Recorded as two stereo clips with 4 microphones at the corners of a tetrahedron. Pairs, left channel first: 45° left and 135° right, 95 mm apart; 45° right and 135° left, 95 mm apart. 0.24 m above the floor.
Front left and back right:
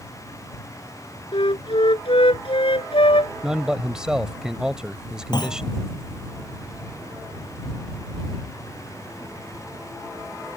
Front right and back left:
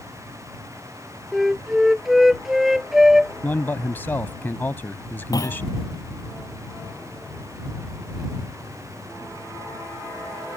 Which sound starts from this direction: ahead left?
A flute, at 1.3 s.